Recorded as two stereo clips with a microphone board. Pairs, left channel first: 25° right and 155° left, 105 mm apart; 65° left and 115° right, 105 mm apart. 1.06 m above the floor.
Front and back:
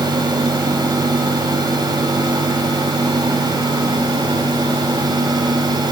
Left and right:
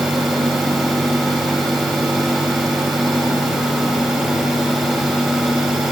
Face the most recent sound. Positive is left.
No sound to turn to.